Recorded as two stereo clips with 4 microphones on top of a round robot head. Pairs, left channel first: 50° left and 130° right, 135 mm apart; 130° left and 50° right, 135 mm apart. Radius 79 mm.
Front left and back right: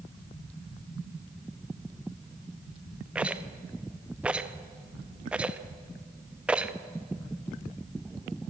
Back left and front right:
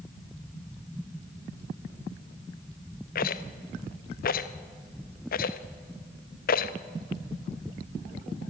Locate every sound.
3.1 s a rattle: 145° left, 1.0 m